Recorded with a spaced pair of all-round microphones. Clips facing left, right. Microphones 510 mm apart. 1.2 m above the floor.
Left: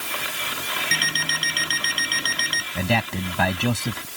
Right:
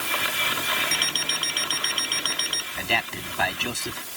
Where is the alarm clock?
40° left (ahead or behind).